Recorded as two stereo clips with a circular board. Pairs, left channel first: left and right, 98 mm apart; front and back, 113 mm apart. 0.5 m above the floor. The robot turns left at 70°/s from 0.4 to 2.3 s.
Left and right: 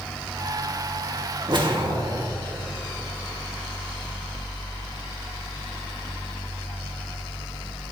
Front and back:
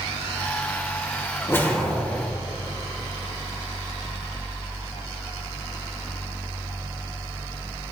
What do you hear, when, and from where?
1.5 s a whoosh: 60° right, 1.3 m; by 2.3 s 120° right, 1.3 m